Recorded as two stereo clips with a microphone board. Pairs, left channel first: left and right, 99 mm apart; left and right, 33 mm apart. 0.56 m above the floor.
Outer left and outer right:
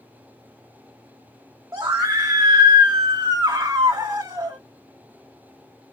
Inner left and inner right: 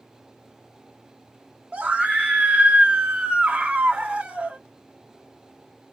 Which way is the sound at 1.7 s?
25° right (ahead or behind).